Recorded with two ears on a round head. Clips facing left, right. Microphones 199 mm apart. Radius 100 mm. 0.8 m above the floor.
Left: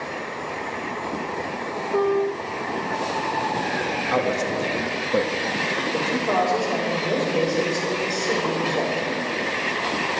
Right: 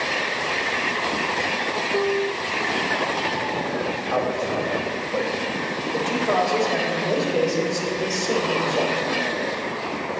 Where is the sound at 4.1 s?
45° left (ahead or behind), 1.6 m.